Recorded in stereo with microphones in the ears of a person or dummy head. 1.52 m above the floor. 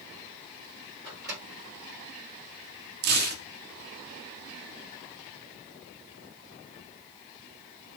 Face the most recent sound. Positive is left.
turn(degrees=-55)  # may be behind; listen again after turning